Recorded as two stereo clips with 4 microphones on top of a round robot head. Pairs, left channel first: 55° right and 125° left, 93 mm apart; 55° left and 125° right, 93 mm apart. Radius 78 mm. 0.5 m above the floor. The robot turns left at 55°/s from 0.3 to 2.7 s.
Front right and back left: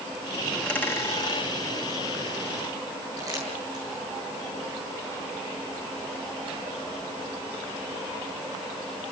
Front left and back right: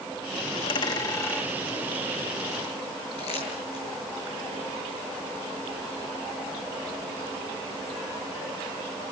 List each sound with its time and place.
0.5 s a dropped coin: 30° left, 3.5 m; by 1.5 s 25° right, 3.5 m
3.2 s crumpling: 70° left, 9 m